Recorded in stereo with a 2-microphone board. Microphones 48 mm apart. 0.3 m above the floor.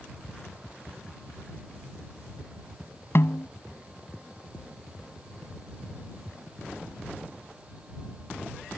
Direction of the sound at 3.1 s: 55° left (ahead or behind).